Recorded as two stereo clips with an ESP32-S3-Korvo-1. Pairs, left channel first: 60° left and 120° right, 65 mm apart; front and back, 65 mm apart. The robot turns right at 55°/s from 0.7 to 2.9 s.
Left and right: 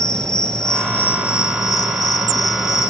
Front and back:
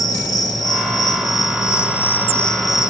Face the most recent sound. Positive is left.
turn(degrees=105)